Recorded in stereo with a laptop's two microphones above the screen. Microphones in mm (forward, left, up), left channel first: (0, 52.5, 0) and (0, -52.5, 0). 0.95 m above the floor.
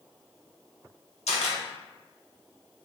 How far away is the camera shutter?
About 1.0 m.